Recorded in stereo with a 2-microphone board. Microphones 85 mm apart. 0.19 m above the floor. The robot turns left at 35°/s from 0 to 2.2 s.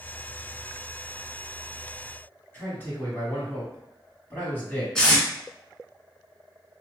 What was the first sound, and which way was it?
A man speaking, 25° left (ahead or behind).